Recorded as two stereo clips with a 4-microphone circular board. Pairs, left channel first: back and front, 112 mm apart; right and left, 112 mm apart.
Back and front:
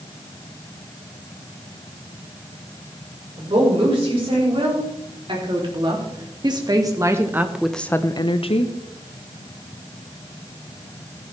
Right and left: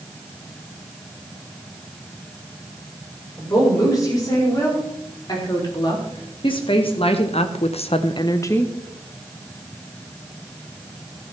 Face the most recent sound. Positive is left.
turn(degrees=-165)